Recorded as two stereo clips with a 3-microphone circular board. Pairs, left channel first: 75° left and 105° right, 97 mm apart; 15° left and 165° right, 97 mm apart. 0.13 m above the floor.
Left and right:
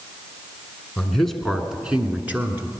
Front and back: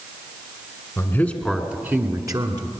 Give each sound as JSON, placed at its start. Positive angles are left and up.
{"t": 1.0, "sound": "a man speaking", "azimuth_deg": 5, "distance_m": 1.2}